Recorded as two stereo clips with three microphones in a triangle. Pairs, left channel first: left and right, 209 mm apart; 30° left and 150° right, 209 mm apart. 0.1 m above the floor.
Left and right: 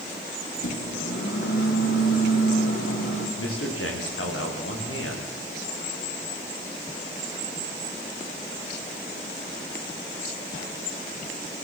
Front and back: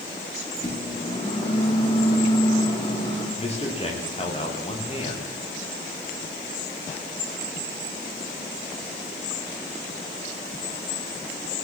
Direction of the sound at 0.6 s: 95° left.